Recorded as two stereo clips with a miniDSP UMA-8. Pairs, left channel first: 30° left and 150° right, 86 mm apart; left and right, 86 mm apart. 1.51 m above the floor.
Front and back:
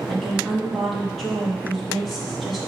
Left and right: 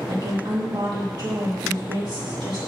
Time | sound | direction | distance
0.1 | a woman speaking | 60° right | 3 m